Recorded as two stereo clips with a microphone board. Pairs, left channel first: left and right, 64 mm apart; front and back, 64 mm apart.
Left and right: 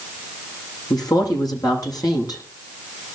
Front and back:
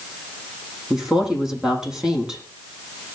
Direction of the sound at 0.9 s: 100° left.